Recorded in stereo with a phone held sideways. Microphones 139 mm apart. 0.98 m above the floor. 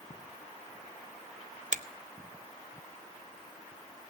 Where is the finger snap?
65° right (ahead or behind), 0.6 m.